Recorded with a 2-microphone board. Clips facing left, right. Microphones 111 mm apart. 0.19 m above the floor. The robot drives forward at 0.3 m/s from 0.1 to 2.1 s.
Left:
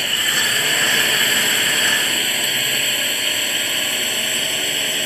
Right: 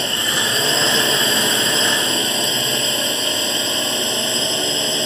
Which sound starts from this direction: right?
A drone, at 0.0 s.